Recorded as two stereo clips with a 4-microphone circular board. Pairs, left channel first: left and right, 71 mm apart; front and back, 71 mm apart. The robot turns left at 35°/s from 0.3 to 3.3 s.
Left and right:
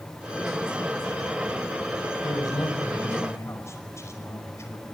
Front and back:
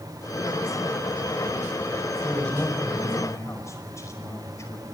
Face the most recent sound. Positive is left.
turn(degrees=45)